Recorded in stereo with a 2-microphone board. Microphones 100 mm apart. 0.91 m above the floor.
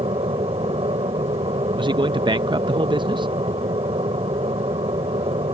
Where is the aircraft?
70° right (ahead or behind).